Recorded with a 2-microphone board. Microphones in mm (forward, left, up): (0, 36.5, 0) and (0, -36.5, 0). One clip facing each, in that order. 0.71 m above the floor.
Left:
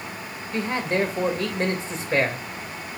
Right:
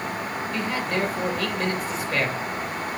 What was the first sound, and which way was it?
A man speaking, 25° left (ahead or behind).